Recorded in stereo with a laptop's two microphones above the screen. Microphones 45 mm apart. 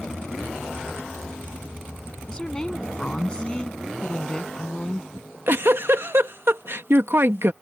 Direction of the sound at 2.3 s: 20° left (ahead or behind).